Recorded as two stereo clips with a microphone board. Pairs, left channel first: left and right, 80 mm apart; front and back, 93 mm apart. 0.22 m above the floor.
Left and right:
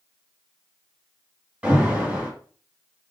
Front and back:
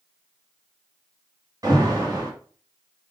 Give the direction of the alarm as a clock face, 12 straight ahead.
5 o'clock.